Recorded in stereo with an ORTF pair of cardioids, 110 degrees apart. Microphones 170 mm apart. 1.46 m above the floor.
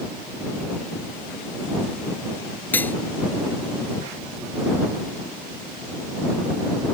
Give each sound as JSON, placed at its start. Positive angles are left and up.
{"t": 2.7, "sound": "cutlery clinking", "azimuth_deg": 10}